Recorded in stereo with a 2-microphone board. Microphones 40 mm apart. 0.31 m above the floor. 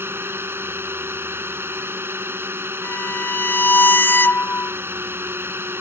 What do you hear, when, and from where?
0.0 s a drone: 70° right (ahead or behind)
2.8 s a violin: 55° left (ahead or behind)